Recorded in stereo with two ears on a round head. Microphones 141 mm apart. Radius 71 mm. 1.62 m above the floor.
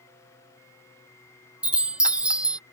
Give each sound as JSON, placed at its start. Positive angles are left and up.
{"t": 1.6, "sound": "a chime", "side_deg": -5}